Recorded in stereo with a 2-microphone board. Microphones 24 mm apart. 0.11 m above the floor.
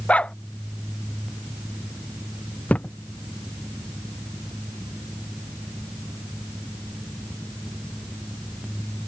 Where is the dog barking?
60° left (ahead or behind).